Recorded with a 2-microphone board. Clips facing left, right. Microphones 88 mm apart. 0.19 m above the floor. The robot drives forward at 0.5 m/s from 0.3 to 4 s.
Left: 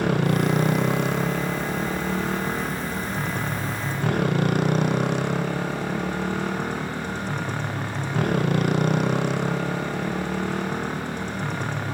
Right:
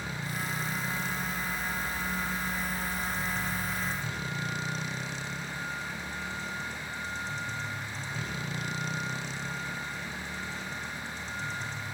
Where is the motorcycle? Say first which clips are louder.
Left 14 dB; 70° left (ahead or behind); by 11.9 s 65° left (ahead or behind).